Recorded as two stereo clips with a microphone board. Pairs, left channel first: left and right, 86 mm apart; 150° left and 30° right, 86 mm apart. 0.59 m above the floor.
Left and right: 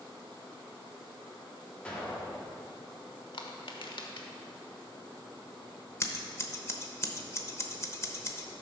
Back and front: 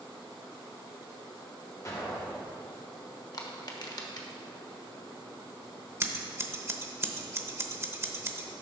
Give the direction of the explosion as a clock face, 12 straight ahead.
7 o'clock.